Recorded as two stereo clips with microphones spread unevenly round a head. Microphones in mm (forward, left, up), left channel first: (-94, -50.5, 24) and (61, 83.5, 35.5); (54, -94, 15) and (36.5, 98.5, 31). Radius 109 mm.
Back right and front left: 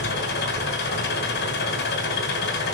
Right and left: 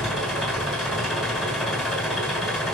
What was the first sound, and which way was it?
An engine running, straight behind.